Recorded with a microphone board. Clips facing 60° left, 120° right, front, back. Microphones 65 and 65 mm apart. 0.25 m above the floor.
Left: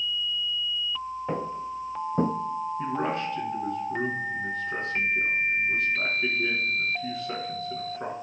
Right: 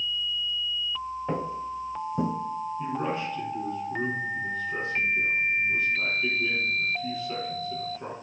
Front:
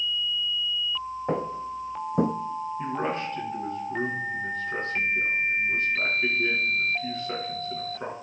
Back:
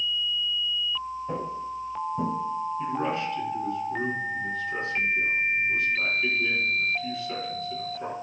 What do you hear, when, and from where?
1.3 s footsteps: 25° right, 1.0 m; by 2.3 s 20° left, 0.6 m
2.8 s a man speaking: 50° left, 3 m